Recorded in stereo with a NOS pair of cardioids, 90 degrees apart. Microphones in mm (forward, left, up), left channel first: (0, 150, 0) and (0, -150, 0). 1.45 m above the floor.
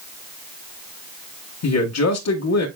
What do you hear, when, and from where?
1.6 s a man speaking: 55° left, 1.6 m